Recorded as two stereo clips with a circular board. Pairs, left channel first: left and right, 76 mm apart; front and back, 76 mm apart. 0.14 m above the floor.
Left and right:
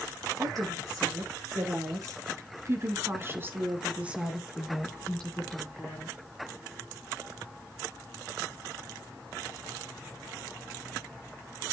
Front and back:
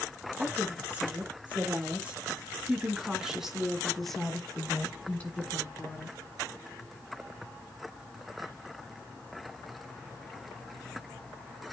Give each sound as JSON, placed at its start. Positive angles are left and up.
{"t": 0.4, "sound": "a woman speaking", "azimuth_deg": -115, "distance_m": 3.5}